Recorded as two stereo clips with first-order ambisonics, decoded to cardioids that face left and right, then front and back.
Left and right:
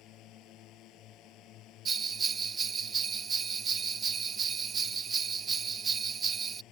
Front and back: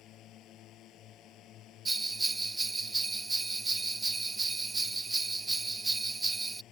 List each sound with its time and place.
0.0 s a drone: 50° left
1.9 s a bell: 120° right